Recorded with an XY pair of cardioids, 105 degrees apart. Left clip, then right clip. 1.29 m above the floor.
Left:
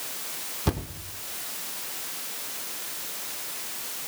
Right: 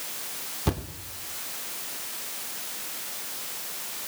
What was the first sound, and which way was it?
A thud, straight ahead.